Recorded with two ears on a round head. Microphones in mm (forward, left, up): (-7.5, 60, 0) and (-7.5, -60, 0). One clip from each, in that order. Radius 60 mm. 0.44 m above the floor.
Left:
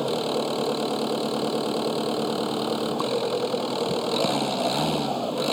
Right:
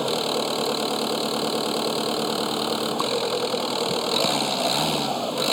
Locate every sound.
0.0 s an engine running: 45° right (ahead or behind)